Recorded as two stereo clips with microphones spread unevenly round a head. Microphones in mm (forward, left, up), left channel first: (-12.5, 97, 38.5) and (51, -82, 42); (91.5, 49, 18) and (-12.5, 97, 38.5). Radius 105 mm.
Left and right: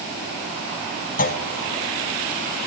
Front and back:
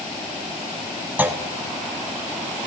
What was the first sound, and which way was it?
A clunk, 75° left.